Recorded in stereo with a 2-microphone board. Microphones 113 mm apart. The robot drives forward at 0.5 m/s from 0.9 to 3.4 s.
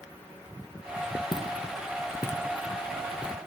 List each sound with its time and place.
1.3 s footsteps: 40° left (ahead or behind), 2 m; by 3.4 s 10° right (ahead or behind), 1.8 m